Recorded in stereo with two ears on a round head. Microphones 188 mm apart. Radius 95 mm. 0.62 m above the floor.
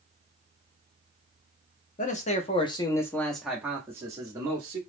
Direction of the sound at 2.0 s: 40° left (ahead or behind).